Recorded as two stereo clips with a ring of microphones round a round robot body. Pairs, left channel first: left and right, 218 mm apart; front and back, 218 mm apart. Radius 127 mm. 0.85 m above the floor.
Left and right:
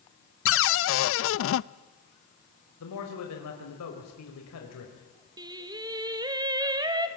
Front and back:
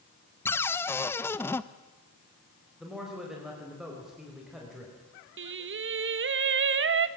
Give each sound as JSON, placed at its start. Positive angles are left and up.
{"t": 0.5, "sound": "a cupboard door", "azimuth_deg": 80, "distance_m": 0.6}
{"t": 2.8, "sound": "a man speaking", "azimuth_deg": 90, "distance_m": 4.5}
{"t": 5.4, "sound": "singing", "azimuth_deg": -160, "distance_m": 1.2}